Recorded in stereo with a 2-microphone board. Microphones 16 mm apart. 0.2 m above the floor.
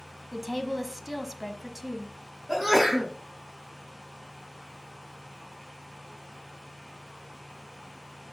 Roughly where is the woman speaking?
Centre.